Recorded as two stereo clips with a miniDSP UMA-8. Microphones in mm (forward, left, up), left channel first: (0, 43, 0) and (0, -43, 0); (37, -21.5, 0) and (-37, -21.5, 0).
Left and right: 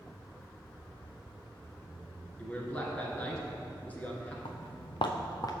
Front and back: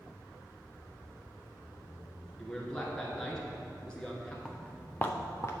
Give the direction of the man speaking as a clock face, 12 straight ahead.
10 o'clock.